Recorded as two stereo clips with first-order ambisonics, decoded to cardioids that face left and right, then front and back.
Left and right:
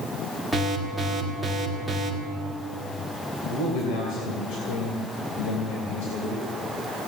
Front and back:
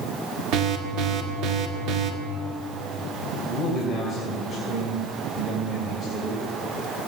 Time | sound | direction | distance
0.5 | an alarm | 175° left | 1.9 m
3.5 | a man speaking | 75° left | 3 m